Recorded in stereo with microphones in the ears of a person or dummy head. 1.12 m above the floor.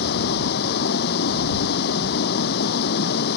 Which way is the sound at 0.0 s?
60° left (ahead or behind).